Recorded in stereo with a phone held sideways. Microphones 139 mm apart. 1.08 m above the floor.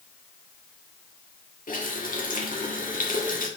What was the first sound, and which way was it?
A running tap, 85° left.